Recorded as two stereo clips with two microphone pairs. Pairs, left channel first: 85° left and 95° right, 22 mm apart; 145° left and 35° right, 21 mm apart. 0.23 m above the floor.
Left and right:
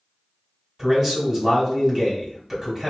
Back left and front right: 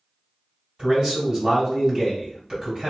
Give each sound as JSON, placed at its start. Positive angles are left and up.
{"t": 0.8, "sound": "a man speaking", "azimuth_deg": -35, "distance_m": 1.7}